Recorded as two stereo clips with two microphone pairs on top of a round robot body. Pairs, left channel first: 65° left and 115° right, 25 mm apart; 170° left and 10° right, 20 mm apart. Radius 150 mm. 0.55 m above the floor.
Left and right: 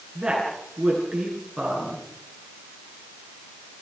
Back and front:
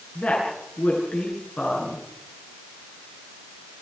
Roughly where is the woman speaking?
Behind.